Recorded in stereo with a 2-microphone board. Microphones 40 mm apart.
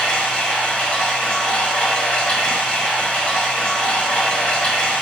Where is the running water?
20° left (ahead or behind), 1.7 m.